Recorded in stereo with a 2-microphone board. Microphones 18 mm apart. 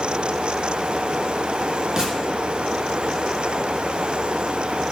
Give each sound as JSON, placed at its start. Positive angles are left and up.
{"t": 2.0, "sound": "a gunshot", "side_deg": -40, "distance_m": 4.5}